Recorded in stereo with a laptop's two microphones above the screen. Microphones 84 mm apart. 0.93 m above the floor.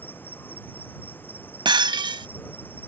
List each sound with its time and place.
0.0 s an insect: 20° left (ahead or behind)
1.6 s breaking glass: 65° right (ahead or behind)